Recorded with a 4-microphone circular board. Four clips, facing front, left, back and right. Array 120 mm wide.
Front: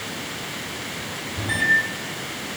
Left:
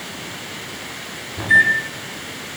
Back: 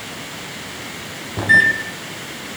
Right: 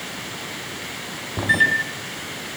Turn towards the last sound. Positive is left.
turn(degrees=-145)